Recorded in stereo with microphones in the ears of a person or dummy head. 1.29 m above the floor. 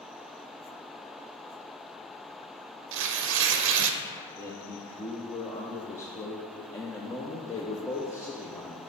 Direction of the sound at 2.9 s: 70° right (ahead or behind).